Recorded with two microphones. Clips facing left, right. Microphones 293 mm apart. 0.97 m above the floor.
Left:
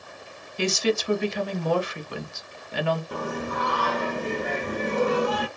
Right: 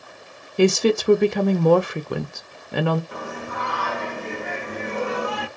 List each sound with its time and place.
0.6 s a woman speaking: 60° right (ahead or behind), 0.6 m
3.1 s singing: 45° left (ahead or behind), 0.8 m